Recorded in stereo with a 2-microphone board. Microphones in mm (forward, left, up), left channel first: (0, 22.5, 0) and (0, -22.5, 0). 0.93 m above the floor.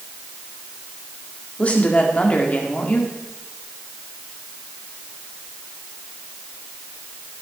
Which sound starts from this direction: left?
A woman speaking, at 1.6 s.